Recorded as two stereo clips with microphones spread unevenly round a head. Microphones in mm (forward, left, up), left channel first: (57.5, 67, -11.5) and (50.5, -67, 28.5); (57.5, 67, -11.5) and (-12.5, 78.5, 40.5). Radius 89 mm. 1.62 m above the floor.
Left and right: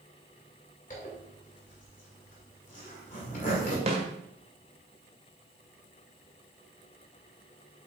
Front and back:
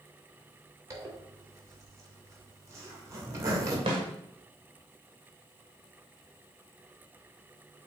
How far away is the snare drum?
About 1.5 m.